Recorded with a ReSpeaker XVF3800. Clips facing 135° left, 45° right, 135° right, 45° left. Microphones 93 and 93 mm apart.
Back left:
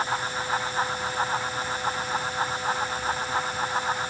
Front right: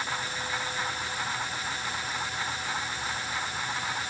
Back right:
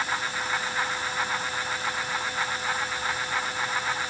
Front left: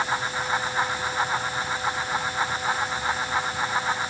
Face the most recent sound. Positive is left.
No sound to turn to.